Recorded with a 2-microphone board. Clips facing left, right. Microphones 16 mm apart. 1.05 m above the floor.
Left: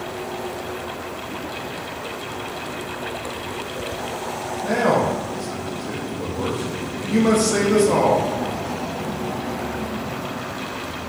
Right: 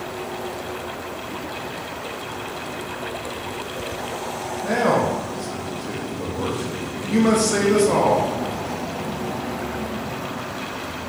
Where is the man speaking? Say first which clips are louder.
Even; 15° right (ahead or behind), 0.8 m.